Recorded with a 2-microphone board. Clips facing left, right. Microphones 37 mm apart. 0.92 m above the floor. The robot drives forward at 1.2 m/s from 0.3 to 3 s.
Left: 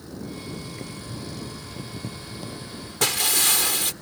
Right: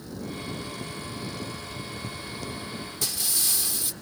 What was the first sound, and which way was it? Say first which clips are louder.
Boiling: right 1 dB; 20° left (ahead or behind).